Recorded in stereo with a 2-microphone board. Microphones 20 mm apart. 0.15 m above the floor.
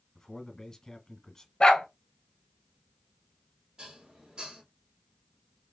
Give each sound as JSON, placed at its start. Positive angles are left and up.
{"t": 0.1, "sound": "a man speaking", "side_deg": 20, "distance_m": 1.4}
{"t": 1.6, "sound": "a dog barking", "side_deg": 40, "distance_m": 1.1}
{"t": 3.8, "sound": "dishes clattering", "side_deg": -35, "distance_m": 2.5}